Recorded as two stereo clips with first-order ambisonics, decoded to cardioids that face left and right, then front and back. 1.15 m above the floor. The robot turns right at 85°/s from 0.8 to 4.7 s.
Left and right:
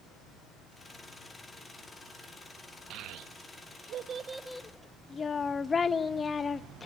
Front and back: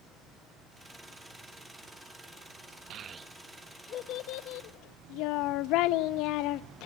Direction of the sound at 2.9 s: 135° right.